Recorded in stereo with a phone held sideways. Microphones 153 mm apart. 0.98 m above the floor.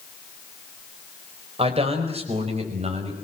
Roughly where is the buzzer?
I don't hear a buzzer.